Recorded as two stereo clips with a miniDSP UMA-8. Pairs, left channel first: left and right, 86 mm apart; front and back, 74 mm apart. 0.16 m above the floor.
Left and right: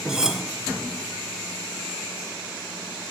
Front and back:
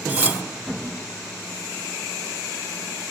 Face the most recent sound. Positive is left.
turn(degrees=-165)